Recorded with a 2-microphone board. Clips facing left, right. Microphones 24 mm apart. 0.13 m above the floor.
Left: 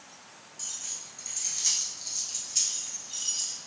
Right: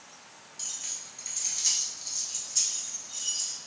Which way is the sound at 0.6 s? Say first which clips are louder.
Right 1 dB; 30° right (ahead or behind).